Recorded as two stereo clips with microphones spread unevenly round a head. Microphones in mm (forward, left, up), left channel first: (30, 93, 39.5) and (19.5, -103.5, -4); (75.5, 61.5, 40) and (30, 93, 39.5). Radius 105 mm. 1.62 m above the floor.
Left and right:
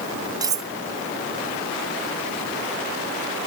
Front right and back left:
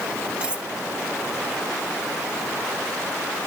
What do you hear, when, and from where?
0.4 s cutlery clinking: 170° right